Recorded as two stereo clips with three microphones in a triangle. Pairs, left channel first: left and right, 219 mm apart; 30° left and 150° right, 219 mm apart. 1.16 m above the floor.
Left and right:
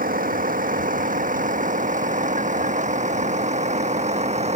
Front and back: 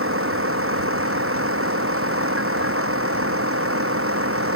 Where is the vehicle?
140° right; by 4.6 s 150° right.